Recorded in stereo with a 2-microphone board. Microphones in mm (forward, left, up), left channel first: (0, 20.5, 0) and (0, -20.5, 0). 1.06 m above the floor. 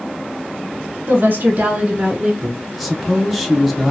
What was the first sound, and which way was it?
A woman speaking, 60° right (ahead or behind).